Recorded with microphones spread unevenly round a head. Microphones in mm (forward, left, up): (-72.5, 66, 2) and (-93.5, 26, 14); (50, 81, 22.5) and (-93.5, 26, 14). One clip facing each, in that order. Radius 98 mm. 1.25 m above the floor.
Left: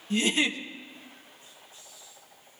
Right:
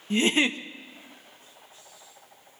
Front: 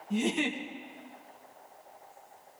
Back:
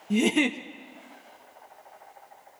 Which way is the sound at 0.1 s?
140° right.